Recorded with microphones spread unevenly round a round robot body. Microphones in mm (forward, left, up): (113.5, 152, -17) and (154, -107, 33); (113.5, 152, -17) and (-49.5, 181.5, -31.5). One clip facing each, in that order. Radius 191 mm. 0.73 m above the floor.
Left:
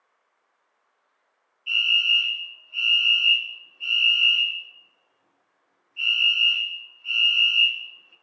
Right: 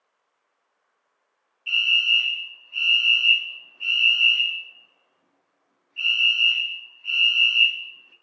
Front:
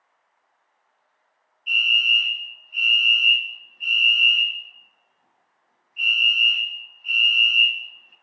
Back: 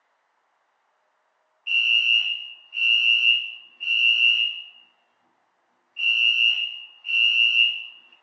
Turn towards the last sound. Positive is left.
turn(degrees=-60)